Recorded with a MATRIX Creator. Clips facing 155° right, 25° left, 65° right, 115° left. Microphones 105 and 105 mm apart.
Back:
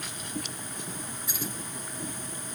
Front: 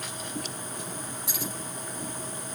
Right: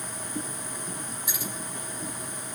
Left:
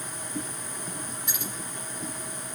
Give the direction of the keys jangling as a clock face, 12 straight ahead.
11 o'clock.